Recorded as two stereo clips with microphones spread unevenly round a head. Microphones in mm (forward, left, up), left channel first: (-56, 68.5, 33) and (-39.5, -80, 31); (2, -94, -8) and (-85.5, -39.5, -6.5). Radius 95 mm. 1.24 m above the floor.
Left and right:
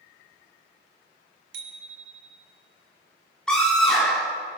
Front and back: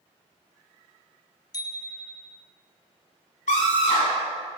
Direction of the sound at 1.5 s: 85° right.